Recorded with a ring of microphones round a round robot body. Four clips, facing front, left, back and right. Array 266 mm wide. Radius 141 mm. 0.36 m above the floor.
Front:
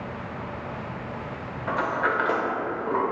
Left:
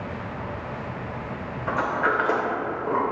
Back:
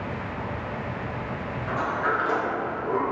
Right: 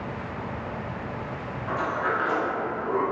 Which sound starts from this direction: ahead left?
A sliding door, at 1.7 s.